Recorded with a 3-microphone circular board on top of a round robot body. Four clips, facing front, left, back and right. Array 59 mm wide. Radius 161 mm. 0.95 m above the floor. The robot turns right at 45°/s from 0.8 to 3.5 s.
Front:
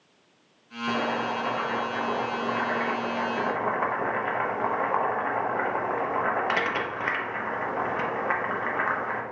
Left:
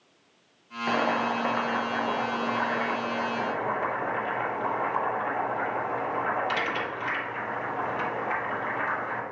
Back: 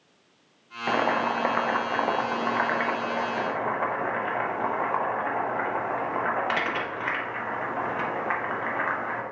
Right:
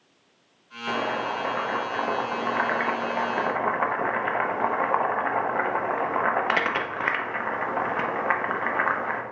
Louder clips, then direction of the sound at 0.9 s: Left 1 dB, back 3 dB; 155° left.